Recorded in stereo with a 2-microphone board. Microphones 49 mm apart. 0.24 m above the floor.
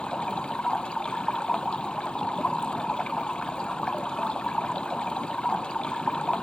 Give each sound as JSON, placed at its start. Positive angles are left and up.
{"t": 0.0, "sound": "running water", "side_deg": 20}